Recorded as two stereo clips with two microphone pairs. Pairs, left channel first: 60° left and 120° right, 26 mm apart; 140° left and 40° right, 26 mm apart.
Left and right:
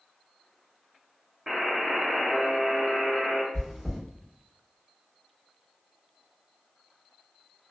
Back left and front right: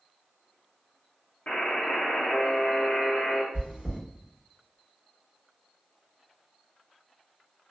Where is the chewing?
45° right, 1.4 m.